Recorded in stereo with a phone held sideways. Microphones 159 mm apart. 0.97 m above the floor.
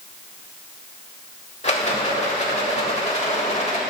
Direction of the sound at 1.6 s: 40° left (ahead or behind).